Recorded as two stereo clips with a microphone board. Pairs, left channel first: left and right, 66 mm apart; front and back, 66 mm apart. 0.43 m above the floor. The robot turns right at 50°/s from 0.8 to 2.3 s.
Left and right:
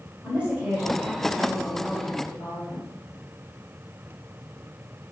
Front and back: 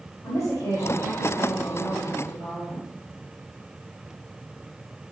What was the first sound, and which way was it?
A woman speaking, 20° right.